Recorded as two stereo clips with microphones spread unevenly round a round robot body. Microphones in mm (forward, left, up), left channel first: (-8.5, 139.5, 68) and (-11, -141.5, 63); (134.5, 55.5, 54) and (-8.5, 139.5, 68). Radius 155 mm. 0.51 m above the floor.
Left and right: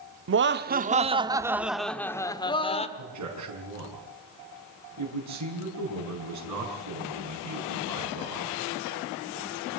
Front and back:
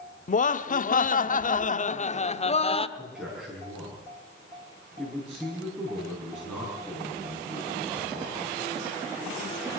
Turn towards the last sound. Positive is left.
turn(degrees=-125)